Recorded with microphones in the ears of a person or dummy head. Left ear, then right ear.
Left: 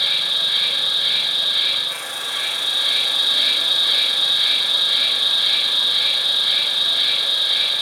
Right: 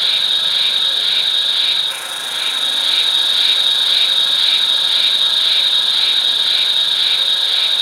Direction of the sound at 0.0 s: 60° right (ahead or behind).